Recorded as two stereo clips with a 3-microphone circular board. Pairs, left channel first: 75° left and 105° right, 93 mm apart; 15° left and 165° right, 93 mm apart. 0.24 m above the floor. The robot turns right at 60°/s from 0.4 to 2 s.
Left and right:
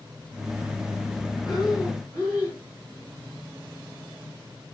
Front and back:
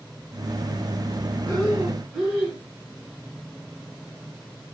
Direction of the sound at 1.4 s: 70° left.